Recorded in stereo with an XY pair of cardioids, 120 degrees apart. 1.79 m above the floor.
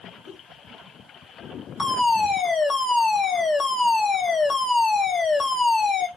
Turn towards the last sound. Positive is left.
turn(degrees=40)